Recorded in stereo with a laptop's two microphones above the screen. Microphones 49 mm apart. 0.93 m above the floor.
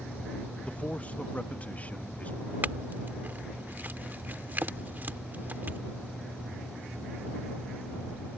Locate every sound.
0.6 s a man speaking: 30° left (ahead or behind); by 2.5 s 35° left (ahead or behind)
2.6 s a clink: 40° right (ahead or behind)